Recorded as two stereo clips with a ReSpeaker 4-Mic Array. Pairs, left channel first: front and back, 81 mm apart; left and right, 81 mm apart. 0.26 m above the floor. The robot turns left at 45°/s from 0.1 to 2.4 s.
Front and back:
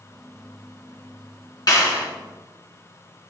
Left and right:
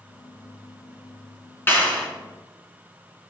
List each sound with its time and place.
1.7 s a clap: 30° left, 3 m; by 2.0 s 15° left, 3 m